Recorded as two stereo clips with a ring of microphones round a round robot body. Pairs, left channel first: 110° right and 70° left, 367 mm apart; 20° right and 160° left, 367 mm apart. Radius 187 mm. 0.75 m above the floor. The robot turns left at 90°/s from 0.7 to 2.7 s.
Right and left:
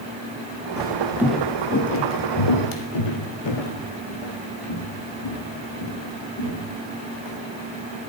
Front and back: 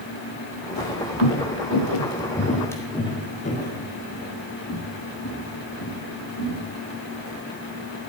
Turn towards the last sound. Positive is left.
turn(degrees=-75)